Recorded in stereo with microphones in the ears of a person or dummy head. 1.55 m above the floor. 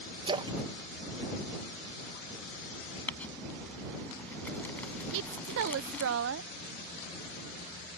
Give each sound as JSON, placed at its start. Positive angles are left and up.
{"t": 0.3, "sound": "a splash", "side_deg": -25}
{"t": 3.1, "sound": "crumpling", "side_deg": 10}
{"t": 5.1, "sound": "a woman speaking", "side_deg": -65}